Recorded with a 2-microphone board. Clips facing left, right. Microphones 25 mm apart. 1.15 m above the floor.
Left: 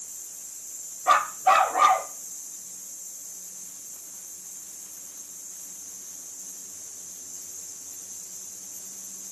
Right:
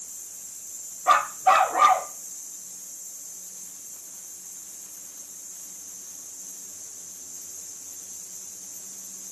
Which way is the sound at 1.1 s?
Centre (ahead or behind).